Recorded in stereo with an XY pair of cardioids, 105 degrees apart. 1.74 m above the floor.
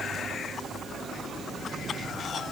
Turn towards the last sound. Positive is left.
No sound to turn to.